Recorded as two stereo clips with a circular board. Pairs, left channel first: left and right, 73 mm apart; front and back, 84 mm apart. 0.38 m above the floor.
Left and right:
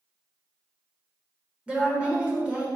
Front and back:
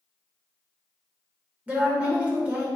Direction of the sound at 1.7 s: 135° right.